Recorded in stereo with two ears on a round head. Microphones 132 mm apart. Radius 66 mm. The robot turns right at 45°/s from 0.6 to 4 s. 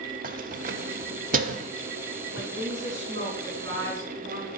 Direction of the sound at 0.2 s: 60° right (ahead or behind).